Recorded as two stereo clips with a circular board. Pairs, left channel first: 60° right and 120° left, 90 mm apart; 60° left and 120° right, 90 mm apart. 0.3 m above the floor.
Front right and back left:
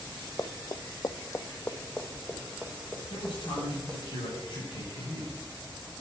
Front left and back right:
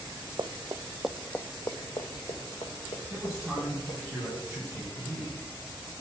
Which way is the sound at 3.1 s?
40° right.